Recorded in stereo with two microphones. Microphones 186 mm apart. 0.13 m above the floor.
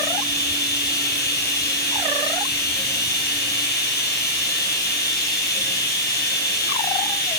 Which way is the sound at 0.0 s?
65° left (ahead or behind).